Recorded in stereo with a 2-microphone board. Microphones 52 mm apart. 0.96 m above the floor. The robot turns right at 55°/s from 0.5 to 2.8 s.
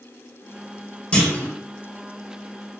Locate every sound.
1.1 s a clunk: 20° left (ahead or behind), 1.2 m; by 1.5 s 35° left (ahead or behind), 1.2 m